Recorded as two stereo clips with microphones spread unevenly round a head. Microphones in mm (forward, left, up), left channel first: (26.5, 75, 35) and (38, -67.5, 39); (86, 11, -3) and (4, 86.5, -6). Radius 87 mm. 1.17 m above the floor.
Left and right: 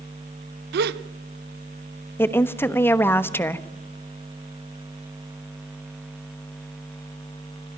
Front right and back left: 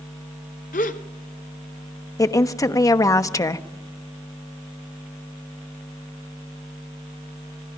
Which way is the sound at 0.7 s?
90° right.